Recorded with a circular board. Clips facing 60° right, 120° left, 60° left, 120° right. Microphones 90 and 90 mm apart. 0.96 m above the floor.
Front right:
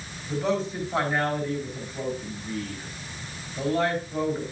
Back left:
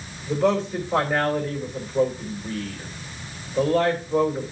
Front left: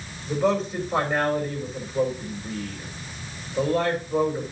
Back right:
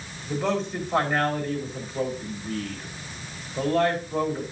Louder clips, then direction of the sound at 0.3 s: Back left 5 dB, front left 3 dB; 140° left.